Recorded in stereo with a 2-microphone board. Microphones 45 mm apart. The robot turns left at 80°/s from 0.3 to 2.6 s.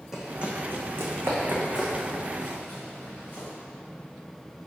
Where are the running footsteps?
10° right (ahead or behind), 1.3 m; by 3.5 s 60° left (ahead or behind), 2.5 m.